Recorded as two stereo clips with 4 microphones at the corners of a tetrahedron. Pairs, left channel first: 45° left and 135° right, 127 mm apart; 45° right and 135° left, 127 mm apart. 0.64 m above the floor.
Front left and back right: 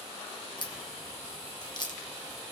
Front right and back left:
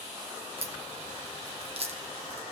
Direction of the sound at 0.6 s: 100° left.